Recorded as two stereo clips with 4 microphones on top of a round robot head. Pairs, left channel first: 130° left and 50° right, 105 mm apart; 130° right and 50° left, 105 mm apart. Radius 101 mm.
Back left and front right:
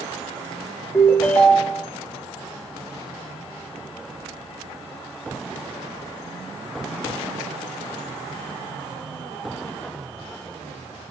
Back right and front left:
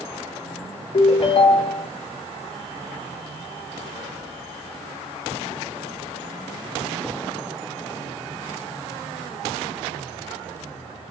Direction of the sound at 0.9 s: 155° right.